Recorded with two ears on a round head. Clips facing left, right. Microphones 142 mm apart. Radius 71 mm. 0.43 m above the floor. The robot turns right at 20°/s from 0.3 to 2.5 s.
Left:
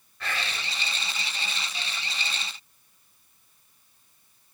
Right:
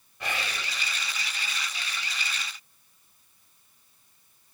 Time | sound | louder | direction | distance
0.2 | whispering | right 1 dB | 15° right (ahead or behind) | 0.7 m